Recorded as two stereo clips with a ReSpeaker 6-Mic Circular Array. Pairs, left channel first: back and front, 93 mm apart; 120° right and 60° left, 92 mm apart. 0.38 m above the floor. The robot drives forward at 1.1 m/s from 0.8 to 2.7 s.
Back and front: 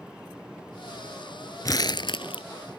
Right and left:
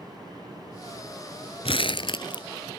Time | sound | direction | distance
1.6 | crumpling | 130° right | ?